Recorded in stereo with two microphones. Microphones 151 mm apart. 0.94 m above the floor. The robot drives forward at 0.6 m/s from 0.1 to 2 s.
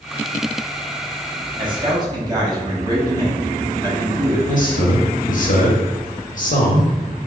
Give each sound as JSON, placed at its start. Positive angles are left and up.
{"t": 1.6, "sound": "a man speaking", "side_deg": -35, "distance_m": 1.1}
{"t": 4.5, "sound": "a man speaking", "side_deg": 60, "distance_m": 0.8}